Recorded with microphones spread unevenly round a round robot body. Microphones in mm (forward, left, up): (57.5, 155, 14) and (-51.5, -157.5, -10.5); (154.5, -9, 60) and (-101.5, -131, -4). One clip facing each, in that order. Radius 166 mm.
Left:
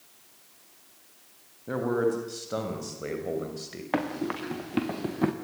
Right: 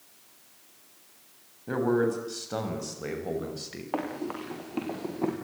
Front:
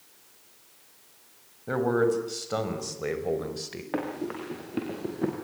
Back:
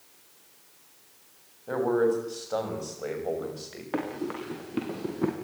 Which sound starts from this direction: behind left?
Running footsteps, at 3.9 s.